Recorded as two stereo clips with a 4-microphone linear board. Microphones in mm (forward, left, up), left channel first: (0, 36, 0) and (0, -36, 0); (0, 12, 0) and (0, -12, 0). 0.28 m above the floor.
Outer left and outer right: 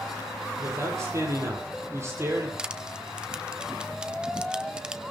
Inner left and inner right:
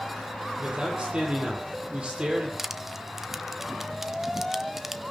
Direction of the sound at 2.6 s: 10° right (ahead or behind).